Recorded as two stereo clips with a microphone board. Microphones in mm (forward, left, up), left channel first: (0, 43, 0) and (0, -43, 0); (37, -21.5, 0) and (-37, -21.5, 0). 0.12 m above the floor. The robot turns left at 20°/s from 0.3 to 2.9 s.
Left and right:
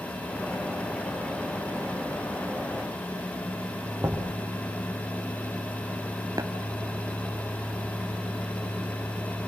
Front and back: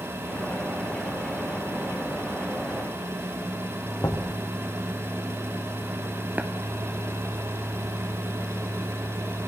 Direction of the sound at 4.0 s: 30° right.